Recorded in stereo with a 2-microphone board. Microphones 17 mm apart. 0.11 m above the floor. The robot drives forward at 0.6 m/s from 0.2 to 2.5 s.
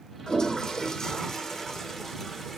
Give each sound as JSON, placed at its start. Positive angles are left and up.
{"t": 0.3, "sound": "a toilet flushing", "side_deg": 55, "distance_m": 1.3}